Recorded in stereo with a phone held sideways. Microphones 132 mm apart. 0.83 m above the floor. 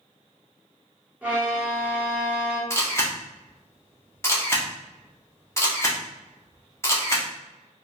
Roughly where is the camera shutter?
Centre.